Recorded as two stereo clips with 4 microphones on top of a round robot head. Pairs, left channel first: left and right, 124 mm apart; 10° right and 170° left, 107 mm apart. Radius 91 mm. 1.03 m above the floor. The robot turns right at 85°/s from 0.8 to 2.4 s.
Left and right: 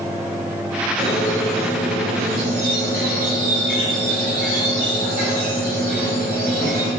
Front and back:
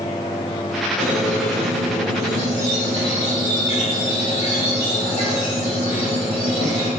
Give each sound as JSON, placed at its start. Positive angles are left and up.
{"t": 1.0, "sound": "a squeak", "azimuth_deg": 170, "distance_m": 1.2}